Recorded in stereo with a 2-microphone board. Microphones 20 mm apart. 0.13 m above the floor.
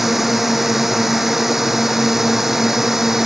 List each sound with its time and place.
0.0 s a drone: 15° right (ahead or behind); by 3.3 s 20° right (ahead or behind)